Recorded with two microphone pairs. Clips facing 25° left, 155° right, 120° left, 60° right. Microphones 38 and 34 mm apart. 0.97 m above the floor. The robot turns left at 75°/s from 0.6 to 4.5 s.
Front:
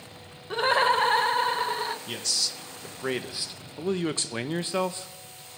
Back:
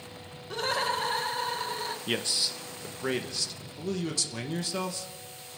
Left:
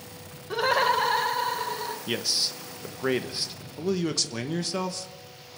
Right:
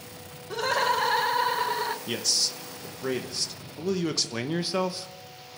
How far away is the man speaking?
About 0.8 m.